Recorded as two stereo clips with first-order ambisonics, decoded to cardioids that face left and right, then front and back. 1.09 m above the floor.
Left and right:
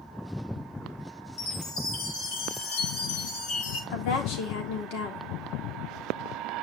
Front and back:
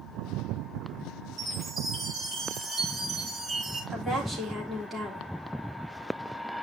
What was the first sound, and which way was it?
A chime, 100° left.